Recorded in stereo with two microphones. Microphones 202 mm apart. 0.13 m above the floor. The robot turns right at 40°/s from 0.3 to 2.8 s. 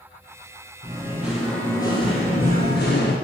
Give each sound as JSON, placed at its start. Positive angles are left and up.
{"t": 0.8, "sound": "singing", "azimuth_deg": -25, "distance_m": 1.8}